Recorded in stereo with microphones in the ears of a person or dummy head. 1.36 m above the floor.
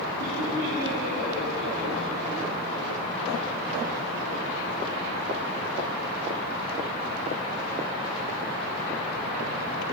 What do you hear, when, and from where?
0.2 s laughter: 80° right, 4 m; by 2.3 s 55° right (ahead or behind), 3.5 m